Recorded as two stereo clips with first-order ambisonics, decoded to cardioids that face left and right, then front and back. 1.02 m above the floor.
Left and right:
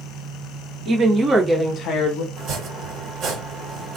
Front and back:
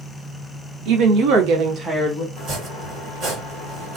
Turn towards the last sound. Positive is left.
turn(degrees=-135)